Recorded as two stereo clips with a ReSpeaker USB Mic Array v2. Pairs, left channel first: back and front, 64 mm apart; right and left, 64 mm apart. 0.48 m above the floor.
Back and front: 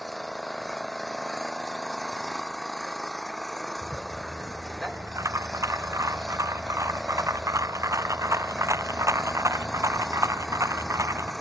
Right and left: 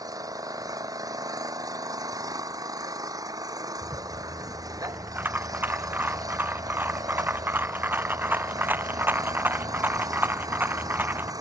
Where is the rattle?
35° left.